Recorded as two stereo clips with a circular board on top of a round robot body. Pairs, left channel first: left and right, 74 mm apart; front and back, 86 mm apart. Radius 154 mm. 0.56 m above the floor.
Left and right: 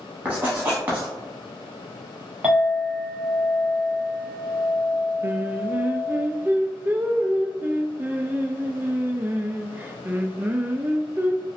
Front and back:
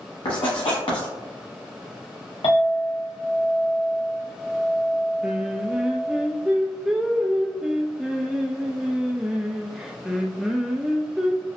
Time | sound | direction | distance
0.2 | writing | 25° right | 0.9 m
2.4 | a clink | 20° right | 1.3 m
5.2 | singing | 105° right | 0.6 m